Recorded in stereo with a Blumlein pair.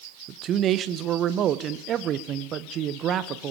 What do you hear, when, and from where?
0.3 s a man speaking: 30° right, 1.4 m